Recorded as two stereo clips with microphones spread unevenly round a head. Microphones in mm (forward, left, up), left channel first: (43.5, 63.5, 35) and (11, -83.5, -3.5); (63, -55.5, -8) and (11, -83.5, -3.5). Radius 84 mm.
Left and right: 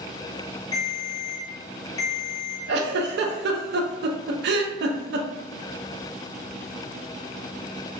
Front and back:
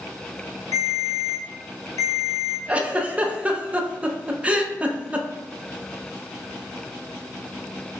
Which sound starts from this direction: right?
A giggle, at 2.7 s.